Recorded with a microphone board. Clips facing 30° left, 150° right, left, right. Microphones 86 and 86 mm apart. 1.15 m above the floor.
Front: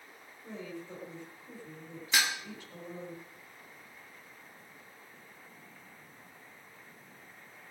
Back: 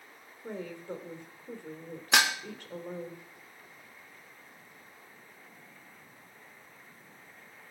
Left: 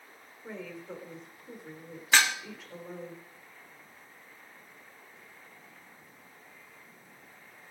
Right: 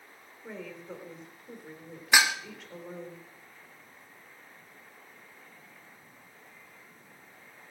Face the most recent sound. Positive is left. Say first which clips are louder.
# back 5 dB, right 1 dB
turn(degrees=-165)